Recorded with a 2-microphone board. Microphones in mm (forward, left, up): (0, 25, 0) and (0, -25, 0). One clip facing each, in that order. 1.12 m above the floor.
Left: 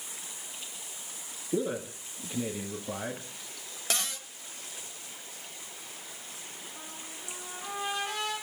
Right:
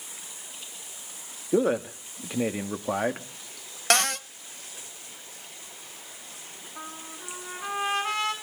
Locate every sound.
1.5 s a man speaking: 75° right (ahead or behind), 2.5 m
3.9 s a cupboard door: 70° right (ahead or behind), 0.9 m
6.8 s a trumpet: 75° right (ahead or behind), 7 m